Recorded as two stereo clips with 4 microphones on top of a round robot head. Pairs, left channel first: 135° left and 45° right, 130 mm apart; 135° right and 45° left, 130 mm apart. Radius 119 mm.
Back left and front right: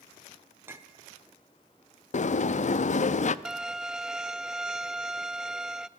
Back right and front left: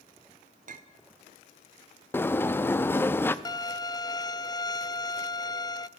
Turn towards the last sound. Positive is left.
turn(degrees=-125)